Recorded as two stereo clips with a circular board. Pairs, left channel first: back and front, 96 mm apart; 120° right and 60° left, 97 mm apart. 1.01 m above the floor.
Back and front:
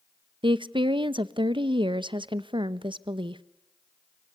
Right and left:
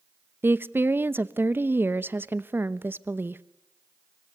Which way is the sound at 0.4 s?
5° right.